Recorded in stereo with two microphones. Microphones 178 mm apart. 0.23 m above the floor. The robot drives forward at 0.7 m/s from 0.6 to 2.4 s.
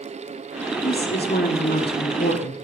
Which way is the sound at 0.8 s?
55° left (ahead or behind).